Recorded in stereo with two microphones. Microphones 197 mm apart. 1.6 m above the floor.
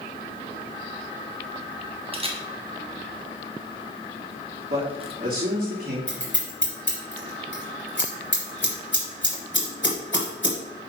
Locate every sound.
2.1 s a camera shutter: 30° right (ahead or behind), 1.2 m
4.7 s a man speaking: 45° right (ahead or behind), 3 m
6.1 s scissors: 70° left (ahead or behind), 4 m